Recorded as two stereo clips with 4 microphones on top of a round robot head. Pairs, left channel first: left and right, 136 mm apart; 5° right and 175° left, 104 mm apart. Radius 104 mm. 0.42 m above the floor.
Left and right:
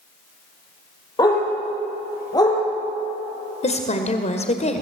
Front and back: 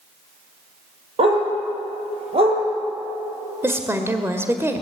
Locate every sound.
1.2 s a dog barking: 150° left, 5.5 m
3.6 s a woman speaking: 115° left, 1.7 m